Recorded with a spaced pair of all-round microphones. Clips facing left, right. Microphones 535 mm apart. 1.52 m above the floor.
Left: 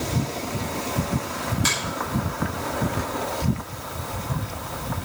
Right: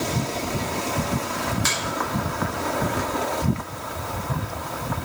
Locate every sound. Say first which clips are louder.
1.6 s a finger snap: left 2 dB; 55° left (ahead or behind), 6.5 m